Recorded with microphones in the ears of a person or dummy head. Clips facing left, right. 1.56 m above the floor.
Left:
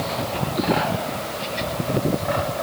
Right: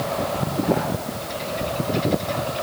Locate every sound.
Only background noise.